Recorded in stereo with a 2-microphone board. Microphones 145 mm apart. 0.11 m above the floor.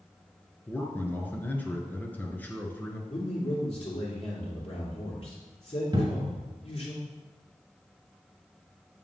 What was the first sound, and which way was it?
A man speaking, 15° left (ahead or behind).